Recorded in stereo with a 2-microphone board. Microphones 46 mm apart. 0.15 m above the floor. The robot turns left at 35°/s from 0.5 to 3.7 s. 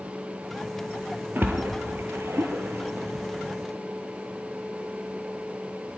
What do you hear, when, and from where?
1.4 s a splash: 50° right (ahead or behind), 1.1 m; by 3.2 s 55° right (ahead or behind), 1.1 m